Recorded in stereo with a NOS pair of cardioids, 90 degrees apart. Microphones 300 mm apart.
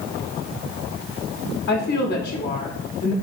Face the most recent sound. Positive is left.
turn(degrees=35)